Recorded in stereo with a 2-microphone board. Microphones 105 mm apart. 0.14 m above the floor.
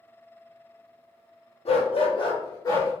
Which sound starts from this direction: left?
A dog barking, at 1.6 s.